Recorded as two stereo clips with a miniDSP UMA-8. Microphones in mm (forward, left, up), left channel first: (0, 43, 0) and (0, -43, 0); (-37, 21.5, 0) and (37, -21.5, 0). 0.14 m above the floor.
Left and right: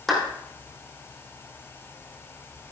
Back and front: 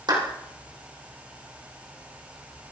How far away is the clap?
About 4.5 m.